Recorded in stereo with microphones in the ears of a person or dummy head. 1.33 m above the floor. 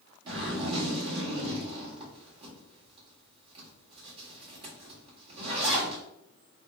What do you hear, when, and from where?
0.3 s a zipper: 25° right (ahead or behind), 1.6 m